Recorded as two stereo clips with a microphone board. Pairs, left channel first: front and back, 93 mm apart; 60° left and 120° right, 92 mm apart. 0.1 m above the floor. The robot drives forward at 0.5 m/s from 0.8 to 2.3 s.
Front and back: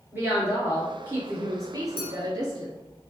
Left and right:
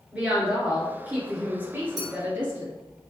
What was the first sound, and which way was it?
A woman speaking, 165° right.